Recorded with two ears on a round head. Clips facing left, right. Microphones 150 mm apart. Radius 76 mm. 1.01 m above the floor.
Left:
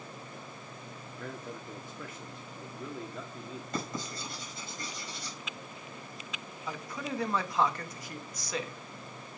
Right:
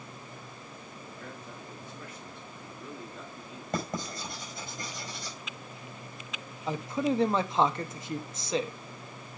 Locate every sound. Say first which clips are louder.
1.1 s a man speaking: left 5 dB; 65° left (ahead or behind), 3 m
3.7 s writing: right 4 dB; 40° right (ahead or behind), 5 m
6.7 s a man speaking: right 9 dB; 25° right (ahead or behind), 0.9 m